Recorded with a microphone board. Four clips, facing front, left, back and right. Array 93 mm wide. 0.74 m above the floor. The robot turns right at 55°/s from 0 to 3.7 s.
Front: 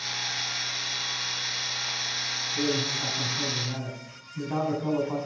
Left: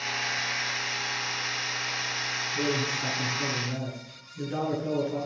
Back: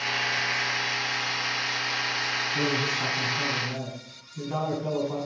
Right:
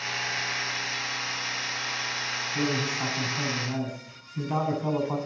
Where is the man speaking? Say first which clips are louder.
Right 1 dB, front 1 dB; 145° right, 7.5 m; by 5.2 s 80° right, 7.5 m.